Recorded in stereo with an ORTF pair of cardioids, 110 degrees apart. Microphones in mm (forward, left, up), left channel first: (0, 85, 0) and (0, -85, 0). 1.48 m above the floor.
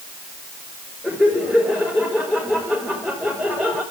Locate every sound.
1.0 s laughter: 10° left, 5 m